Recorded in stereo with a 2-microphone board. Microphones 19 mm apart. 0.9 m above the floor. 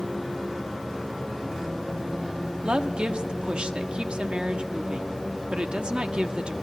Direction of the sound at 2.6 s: 70° right (ahead or behind).